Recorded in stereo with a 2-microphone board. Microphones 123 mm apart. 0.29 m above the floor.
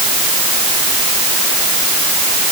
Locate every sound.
Only background noise.